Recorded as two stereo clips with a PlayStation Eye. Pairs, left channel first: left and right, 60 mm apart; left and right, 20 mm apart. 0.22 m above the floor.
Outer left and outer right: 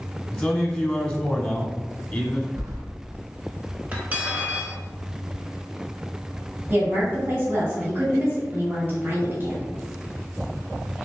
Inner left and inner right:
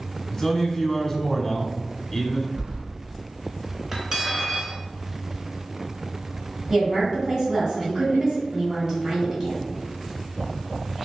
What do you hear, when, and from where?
0.3 s a man speaking: 20° left (ahead or behind), 1.1 m
2.6 s keys jangling: 65° right (ahead or behind), 1.8 m
3.9 s cutlery clinking: 25° right (ahead or behind), 1.4 m
6.7 s a woman speaking: 35° right (ahead or behind), 1.9 m